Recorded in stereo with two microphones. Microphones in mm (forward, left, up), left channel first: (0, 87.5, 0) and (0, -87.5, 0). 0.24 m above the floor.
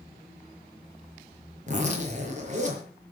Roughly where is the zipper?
Right.